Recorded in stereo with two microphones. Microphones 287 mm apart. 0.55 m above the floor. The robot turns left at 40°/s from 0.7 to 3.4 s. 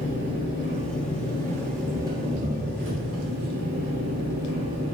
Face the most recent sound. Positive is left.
turn(degrees=-65)